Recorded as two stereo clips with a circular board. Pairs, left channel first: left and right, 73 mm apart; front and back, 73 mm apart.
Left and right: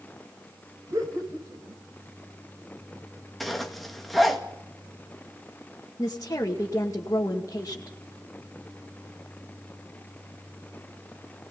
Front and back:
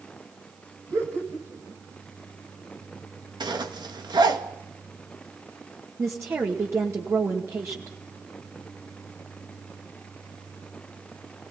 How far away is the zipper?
About 2 m.